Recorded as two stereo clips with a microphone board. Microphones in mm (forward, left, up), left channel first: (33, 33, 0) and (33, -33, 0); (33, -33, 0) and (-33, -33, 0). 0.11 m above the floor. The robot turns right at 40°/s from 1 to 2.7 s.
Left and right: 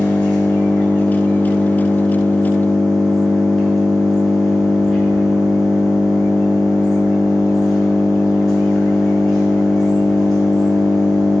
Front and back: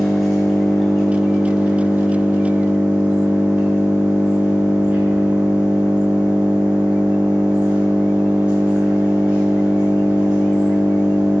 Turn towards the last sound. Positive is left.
turn(degrees=170)